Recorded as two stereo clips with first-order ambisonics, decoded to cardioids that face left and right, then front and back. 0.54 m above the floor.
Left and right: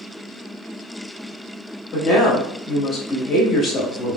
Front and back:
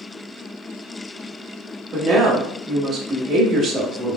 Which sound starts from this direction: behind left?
A woman speaking, at 1.9 s.